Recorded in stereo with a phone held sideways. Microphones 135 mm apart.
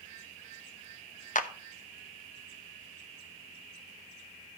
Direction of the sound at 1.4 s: 70° left (ahead or behind).